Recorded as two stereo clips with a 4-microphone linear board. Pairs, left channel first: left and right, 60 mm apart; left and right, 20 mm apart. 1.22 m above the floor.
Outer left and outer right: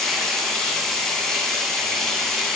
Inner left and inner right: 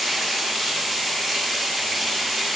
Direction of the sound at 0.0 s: 5° left (ahead or behind).